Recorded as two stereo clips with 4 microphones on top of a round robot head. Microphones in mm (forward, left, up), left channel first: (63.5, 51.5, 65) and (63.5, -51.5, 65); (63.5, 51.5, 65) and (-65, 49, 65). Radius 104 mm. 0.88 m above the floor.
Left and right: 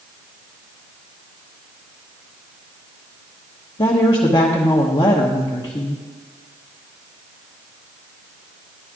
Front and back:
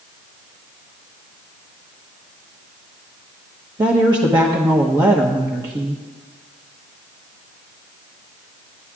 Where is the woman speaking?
130° left, 1.3 m.